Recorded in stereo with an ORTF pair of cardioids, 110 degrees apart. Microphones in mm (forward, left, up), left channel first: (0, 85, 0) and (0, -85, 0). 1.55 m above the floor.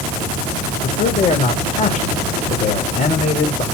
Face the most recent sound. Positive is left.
turn(degrees=50)